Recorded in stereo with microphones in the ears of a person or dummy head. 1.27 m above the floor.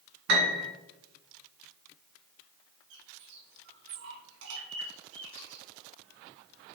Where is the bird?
75° right (ahead or behind), 2.5 m.